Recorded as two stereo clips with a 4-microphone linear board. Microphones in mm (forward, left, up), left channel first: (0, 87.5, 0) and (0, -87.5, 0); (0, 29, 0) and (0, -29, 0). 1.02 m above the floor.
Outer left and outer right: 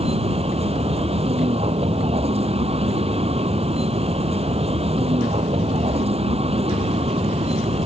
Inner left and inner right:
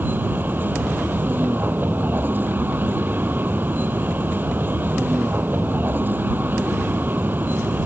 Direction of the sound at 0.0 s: 35° right (ahead or behind).